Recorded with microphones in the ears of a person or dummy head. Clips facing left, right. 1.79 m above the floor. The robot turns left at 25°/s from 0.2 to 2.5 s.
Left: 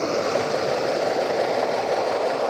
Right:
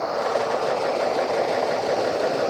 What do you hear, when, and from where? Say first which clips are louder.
0.0 s running water: left 1 dB; 35° left; by 2.5 s 20° right